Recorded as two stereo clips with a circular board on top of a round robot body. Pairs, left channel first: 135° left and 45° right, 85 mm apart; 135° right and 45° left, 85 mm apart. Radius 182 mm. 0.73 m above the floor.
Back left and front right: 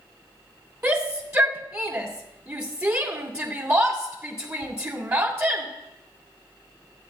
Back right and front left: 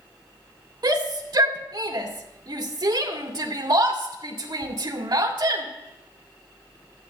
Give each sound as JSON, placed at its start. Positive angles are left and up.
{"t": 0.8, "sound": "a shout", "azimuth_deg": 5, "distance_m": 2.5}